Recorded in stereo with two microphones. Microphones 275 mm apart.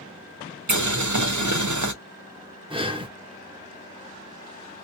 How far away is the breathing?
About 0.8 m.